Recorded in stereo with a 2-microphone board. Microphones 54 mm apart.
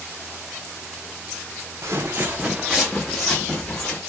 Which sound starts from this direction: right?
Footsteps, at 1.8 s.